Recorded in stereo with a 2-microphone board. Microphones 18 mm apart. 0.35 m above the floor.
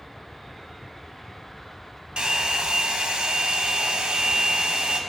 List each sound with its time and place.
2.2 s a hair dryer: 55° right (ahead or behind), 0.8 m